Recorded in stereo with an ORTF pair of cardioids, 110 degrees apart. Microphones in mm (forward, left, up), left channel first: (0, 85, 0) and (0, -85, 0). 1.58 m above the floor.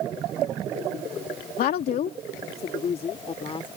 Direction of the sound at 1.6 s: 65° left.